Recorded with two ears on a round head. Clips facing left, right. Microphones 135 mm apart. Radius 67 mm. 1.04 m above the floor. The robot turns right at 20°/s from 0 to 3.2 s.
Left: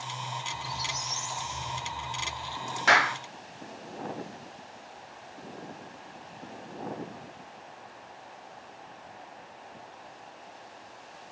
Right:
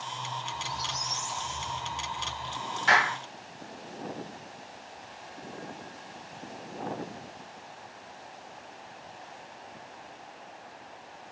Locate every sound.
0.5 s a squeak: 10° left (ahead or behind), 0.7 m; by 2.7 s 5° right (ahead or behind), 0.7 m
2.9 s a clap: 60° left (ahead or behind), 2.5 m; by 3.2 s 65° left (ahead or behind), 2.5 m